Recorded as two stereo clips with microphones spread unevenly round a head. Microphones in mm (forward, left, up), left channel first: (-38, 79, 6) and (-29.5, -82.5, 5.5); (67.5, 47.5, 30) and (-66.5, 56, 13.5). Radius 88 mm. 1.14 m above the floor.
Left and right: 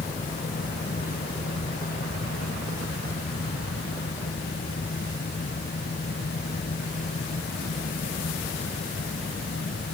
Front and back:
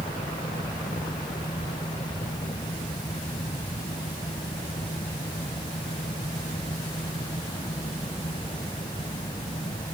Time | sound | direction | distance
0.0 | a fan | 50° left | ?